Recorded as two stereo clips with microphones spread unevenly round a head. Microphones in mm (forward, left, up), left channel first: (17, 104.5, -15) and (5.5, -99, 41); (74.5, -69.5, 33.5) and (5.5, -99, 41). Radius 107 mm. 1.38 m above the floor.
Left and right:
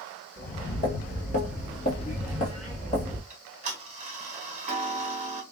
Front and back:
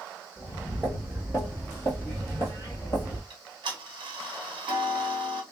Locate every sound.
0.4 s footsteps: 140° left, 1.5 m; by 3.2 s 15° left, 1.7 m
3.3 s ticking: 155° right, 1.0 m